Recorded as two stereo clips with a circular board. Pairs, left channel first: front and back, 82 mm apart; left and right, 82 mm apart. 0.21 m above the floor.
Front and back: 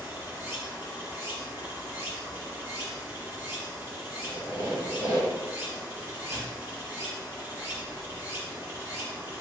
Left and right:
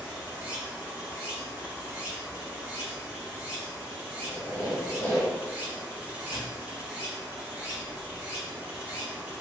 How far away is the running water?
About 1.3 m.